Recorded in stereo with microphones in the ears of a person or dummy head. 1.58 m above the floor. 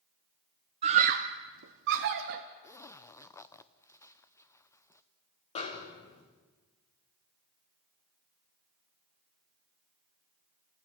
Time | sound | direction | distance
0.8 | a scream | 25° right (ahead or behind) | 0.5 m
2.6 | a zipper | 10° left (ahead or behind) | 0.6 m
5.5 | a snare drum | 25° left (ahead or behind) | 2.5 m